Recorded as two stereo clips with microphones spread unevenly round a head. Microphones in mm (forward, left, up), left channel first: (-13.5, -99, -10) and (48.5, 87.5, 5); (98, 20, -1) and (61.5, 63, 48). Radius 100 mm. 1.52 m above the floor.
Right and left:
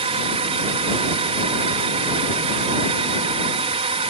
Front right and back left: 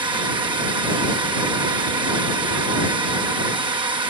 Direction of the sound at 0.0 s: 135° left.